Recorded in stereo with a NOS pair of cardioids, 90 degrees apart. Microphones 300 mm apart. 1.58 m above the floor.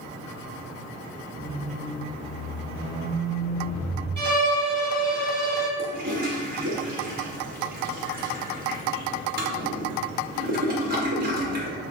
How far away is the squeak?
About 1.3 m.